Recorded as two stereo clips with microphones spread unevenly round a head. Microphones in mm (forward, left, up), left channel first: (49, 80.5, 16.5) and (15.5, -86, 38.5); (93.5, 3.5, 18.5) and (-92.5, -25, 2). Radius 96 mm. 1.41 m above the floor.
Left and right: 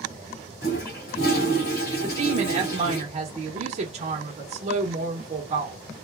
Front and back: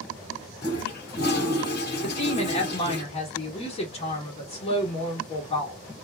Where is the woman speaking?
50° right, 1.0 m.